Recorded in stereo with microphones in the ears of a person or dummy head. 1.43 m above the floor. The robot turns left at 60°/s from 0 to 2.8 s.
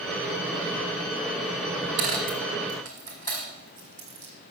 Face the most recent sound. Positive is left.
turn(degrees=20)  # may be behind; listen again after turning